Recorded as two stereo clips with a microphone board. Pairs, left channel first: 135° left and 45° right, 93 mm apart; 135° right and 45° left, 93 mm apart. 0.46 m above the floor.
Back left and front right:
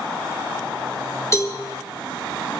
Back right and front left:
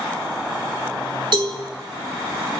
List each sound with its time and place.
1.3 s a cowbell: 80° left, 3.5 m